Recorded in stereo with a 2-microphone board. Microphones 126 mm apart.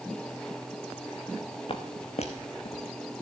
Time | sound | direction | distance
1.7 | footsteps | 45° left (ahead or behind) | 1.4 m